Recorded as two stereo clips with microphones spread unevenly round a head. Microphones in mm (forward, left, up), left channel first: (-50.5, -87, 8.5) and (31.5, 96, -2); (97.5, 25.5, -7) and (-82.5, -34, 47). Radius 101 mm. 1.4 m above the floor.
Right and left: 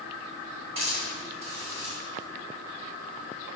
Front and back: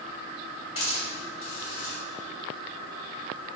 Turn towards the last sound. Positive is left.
turn(degrees=5)